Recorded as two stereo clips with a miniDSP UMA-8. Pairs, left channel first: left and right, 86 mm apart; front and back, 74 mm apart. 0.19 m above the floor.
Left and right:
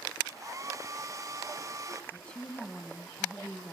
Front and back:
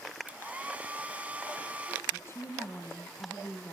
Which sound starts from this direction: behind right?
A hair dryer, at 0.3 s.